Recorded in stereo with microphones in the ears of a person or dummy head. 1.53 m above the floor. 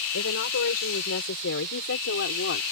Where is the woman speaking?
75° left (ahead or behind); by 2.6 s 70° left (ahead or behind).